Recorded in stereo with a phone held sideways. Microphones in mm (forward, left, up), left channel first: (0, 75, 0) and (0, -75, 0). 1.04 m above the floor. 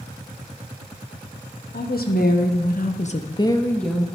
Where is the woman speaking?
75° left (ahead or behind), 1.2 m; by 4.1 s centre (ahead or behind), 0.9 m.